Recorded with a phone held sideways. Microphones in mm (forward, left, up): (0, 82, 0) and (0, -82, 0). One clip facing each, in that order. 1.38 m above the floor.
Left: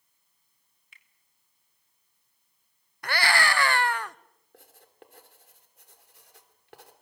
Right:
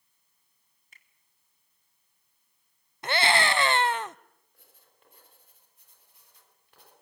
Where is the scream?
20° right (ahead or behind), 0.7 m.